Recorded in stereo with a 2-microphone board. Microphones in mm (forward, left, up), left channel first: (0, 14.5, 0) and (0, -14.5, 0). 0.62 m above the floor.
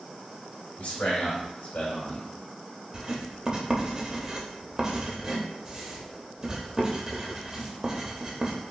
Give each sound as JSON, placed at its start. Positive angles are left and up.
{"t": 0.8, "sound": "a man speaking", "side_deg": 65, "distance_m": 2.5}
{"t": 2.9, "sound": "writing", "side_deg": -25, "distance_m": 0.8}